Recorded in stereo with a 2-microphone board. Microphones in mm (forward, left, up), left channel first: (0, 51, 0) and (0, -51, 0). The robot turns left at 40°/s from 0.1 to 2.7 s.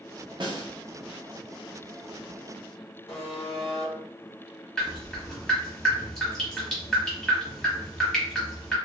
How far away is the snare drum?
About 0.6 m.